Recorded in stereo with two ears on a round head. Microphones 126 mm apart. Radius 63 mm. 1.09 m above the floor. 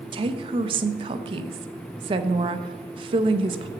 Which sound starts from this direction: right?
A woman speaking, at 0.1 s.